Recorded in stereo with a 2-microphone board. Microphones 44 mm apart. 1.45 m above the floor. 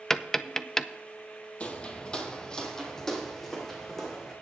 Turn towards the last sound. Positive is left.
turn(degrees=5)  # may be behind; listen again after turning